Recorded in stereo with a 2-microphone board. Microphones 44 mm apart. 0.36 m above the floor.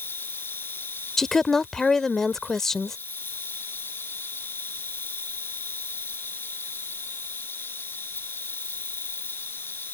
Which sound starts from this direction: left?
An insect, at 0.0 s.